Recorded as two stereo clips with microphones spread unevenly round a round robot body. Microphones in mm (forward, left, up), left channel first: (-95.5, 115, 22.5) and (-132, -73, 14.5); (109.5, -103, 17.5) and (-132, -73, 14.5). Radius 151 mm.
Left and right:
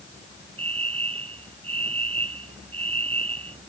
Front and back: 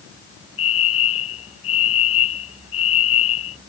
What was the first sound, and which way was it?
A fire alarm, 30° right.